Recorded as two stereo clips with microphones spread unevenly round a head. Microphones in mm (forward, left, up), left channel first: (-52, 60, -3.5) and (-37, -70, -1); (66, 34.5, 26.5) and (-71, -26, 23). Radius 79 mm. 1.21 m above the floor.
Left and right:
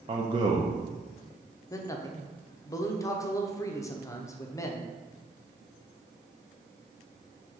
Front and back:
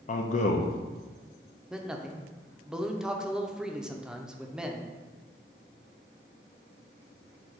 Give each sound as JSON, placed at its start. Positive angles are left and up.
{"t": 0.1, "sound": "a man speaking", "azimuth_deg": -20, "distance_m": 0.6}
{"t": 1.7, "sound": "a man speaking", "azimuth_deg": 125, "distance_m": 0.5}